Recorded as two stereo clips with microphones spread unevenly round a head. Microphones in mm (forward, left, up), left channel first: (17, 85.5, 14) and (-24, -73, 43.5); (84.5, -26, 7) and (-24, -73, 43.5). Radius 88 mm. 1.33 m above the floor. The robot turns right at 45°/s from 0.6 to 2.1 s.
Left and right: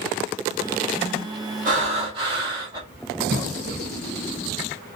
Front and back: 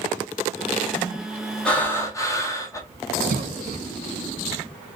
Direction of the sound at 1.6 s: 70° right.